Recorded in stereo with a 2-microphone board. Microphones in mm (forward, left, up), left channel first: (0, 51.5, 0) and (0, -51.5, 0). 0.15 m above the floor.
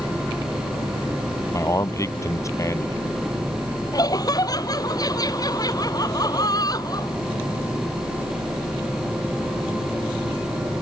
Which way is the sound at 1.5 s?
30° left (ahead or behind).